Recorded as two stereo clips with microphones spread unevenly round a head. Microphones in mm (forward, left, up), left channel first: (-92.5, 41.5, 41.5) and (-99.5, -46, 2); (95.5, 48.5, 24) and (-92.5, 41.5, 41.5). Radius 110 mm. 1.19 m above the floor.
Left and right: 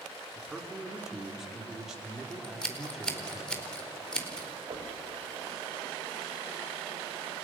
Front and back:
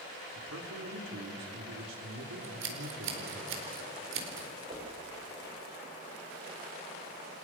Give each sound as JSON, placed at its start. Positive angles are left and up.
{"t": 0.3, "sound": "a man speaking", "azimuth_deg": 180, "distance_m": 3.5}
{"t": 2.4, "sound": "scissors", "azimuth_deg": 165, "distance_m": 4.5}
{"t": 4.7, "sound": "knocking", "azimuth_deg": -115, "distance_m": 5.0}